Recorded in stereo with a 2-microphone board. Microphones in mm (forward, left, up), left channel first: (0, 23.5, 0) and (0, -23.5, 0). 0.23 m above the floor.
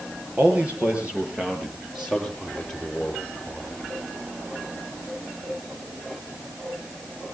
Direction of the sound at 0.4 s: 30° right (ahead or behind).